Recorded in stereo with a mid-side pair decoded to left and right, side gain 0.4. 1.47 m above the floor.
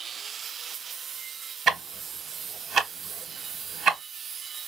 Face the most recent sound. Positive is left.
turn(degrees=-65)